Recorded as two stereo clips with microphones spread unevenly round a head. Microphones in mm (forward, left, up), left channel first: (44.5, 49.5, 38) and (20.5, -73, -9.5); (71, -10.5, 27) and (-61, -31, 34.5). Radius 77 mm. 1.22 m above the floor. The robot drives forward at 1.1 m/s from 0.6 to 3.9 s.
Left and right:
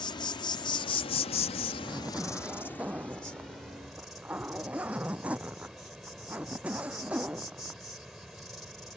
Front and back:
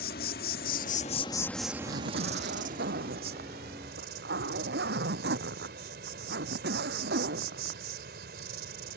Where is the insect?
35° left; by 9.0 s 165° left.